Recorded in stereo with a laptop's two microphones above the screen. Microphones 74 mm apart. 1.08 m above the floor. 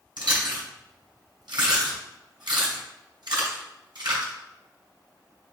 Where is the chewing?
70° right (ahead or behind), 2.5 m.